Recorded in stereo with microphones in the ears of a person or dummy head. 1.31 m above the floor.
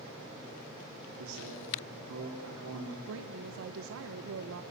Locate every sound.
1.2 s a man speaking: 85° right, 4 m
3.0 s a woman speaking: 75° right (ahead or behind), 0.8 m